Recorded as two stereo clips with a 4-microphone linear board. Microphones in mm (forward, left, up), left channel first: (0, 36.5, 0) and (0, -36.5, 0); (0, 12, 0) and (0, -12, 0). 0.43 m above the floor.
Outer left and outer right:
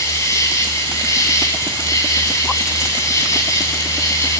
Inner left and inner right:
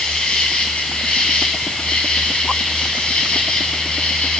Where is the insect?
40° left (ahead or behind), 2.5 m.